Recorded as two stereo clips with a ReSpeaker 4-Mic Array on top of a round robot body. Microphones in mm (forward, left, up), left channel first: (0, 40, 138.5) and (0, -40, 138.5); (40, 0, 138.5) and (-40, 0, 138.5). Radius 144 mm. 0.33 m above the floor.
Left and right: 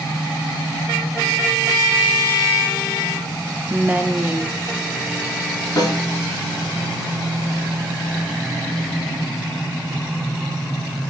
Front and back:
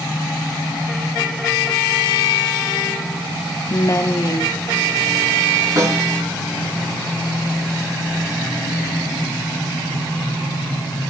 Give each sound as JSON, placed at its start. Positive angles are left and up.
{"t": 3.7, "sound": "a woman speaking", "azimuth_deg": -30, "distance_m": 1.1}
{"t": 5.8, "sound": "a snare drum", "azimuth_deg": 130, "distance_m": 3.5}